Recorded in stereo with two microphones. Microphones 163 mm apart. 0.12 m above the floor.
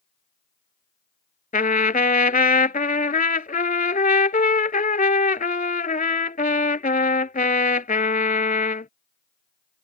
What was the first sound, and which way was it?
A trumpet, 60° left (ahead or behind).